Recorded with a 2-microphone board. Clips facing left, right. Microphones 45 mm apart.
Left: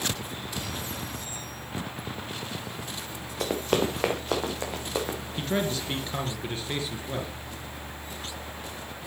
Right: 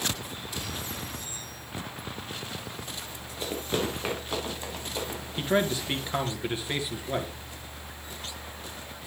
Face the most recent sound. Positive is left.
turn(degrees=-20)  # may be behind; listen again after turning